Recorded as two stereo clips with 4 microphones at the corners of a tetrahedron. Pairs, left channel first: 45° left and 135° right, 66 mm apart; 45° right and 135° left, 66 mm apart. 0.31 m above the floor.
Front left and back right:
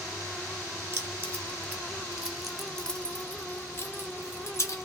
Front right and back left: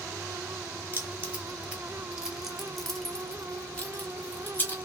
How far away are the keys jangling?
About 1.2 m.